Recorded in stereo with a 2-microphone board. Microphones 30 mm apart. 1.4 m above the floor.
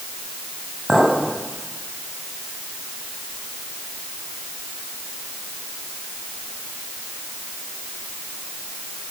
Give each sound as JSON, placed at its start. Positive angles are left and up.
{"t": 0.9, "sound": "a clink", "side_deg": -25, "distance_m": 5.5}